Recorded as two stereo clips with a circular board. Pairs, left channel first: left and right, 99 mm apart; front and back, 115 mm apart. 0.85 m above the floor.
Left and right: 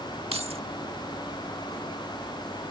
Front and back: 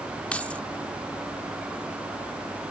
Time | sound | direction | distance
0.3 | keys jangling | 80° right | ?